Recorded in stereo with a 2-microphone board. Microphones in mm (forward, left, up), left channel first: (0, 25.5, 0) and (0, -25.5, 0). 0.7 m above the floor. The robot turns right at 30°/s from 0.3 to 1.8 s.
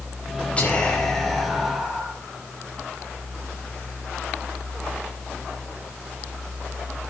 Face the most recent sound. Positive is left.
turn(degrees=-165)